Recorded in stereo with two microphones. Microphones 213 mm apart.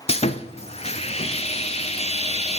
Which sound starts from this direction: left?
Sawing, at 0.1 s.